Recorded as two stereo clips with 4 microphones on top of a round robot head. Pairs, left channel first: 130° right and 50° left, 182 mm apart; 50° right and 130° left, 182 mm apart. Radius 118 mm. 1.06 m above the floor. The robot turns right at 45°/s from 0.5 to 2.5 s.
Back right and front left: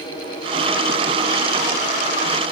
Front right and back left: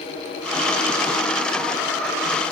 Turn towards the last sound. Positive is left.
No sound to turn to.